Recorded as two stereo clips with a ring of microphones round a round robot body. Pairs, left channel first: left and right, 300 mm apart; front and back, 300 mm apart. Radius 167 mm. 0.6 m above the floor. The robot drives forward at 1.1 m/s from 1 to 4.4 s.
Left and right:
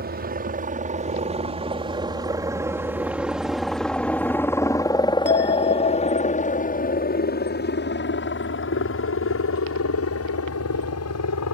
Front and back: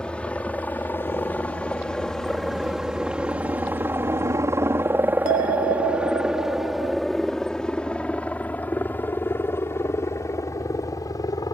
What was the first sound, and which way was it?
A helicopter, 85° right.